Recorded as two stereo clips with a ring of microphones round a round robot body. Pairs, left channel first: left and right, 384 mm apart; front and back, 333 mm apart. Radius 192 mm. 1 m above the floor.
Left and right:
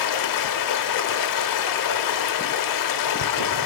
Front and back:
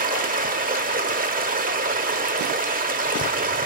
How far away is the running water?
About 1.0 m.